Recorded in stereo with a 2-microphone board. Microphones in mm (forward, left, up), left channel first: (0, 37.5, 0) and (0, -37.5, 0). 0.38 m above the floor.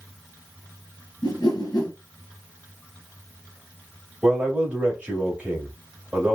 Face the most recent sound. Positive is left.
turn(degrees=-15)  # may be behind; listen again after turning